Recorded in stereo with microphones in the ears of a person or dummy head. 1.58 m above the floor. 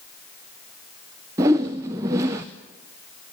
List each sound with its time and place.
1.4 s a whoosh: 10° right (ahead or behind), 0.6 m